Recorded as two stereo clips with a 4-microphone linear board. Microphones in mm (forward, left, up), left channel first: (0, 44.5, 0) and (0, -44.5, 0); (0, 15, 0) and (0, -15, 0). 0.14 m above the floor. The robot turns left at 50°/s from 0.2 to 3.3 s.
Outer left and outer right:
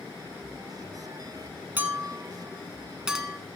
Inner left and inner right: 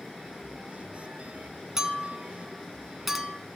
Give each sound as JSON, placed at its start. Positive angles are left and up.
{"t": 1.8, "sound": "a clink", "side_deg": -20, "distance_m": 1.0}